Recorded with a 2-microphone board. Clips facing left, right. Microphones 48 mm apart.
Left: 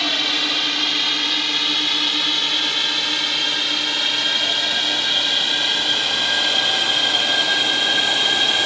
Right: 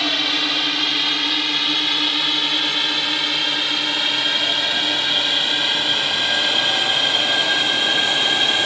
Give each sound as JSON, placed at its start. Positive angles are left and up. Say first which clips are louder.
{"t": 0.0, "sound": "a drone", "louder": "right 1 dB", "side_deg": 0}